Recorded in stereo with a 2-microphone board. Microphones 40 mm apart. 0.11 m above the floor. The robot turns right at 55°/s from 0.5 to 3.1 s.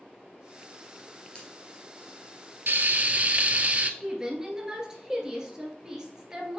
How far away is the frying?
About 0.6 m.